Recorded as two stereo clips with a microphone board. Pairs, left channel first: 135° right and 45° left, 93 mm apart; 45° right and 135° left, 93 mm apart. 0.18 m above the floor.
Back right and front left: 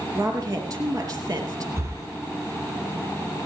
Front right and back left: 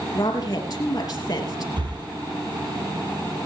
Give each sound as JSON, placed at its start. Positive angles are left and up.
{"t": 0.1, "sound": "a woman speaking", "azimuth_deg": 0, "distance_m": 4.5}
{"t": 1.8, "sound": "breathing", "azimuth_deg": 105, "distance_m": 2.0}